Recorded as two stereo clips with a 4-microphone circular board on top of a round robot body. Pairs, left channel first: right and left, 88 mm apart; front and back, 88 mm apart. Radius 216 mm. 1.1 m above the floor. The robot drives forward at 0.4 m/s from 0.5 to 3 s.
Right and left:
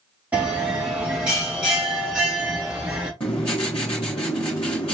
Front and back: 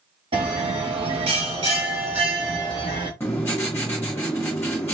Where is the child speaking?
No child speaking in this recording.